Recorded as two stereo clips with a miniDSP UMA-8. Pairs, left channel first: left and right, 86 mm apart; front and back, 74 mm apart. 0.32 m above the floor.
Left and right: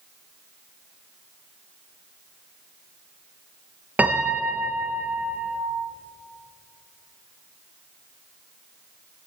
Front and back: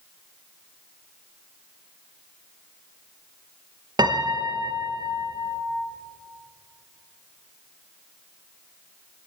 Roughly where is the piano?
Behind.